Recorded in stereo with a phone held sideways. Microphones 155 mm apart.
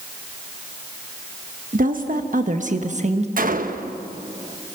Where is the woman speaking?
65° right (ahead or behind), 1.4 m; by 3.3 s 45° right (ahead or behind), 1.6 m.